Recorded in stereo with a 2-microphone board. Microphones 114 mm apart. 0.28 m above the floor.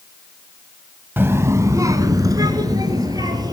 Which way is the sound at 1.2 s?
20° right (ahead or behind).